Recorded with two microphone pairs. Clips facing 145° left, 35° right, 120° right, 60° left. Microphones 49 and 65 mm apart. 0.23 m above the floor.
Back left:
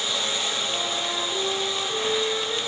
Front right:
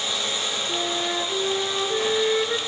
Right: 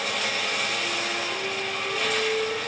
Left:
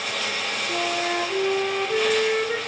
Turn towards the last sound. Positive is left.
turn(degrees=20)